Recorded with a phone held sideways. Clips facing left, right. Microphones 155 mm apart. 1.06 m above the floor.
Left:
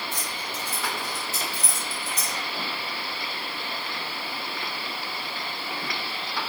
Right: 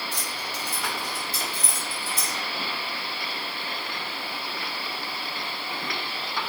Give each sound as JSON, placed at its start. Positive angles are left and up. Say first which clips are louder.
{"t": 0.1, "sound": "keys jangling", "louder": "even", "side_deg": 60, "distance_m": 4.5}